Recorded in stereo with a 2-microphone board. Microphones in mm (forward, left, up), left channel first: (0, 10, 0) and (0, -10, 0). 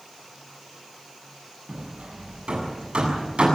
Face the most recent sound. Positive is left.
turn(degrees=-75)  # may be behind; listen again after turning